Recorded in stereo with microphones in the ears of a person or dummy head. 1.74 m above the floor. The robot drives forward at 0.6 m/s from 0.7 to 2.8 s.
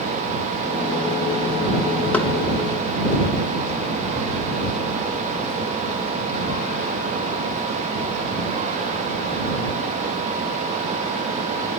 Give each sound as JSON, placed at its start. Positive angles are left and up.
{"t": 2.1, "sound": "knocking", "side_deg": 15, "distance_m": 1.0}